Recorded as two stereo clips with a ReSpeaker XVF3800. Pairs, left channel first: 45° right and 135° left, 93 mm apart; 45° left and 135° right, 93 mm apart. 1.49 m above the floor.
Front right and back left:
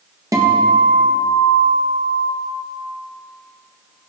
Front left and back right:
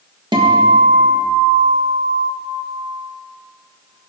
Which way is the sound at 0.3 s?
170° right.